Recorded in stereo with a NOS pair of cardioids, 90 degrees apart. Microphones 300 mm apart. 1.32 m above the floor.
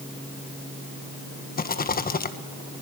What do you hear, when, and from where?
1.6 s a rattle: 30° left, 1.4 m